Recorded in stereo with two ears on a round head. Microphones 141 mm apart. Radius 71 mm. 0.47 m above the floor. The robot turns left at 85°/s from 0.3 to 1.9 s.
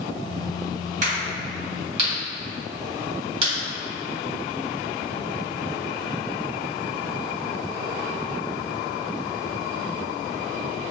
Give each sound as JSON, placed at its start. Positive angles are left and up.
{"t": 1.0, "sound": "a crack", "side_deg": -50, "distance_m": 1.6}